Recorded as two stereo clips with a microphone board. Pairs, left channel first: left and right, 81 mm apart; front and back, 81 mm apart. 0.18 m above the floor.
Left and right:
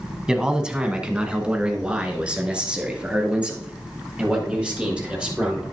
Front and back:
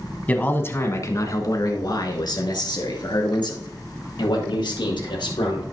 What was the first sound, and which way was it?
A man speaking, 25° right.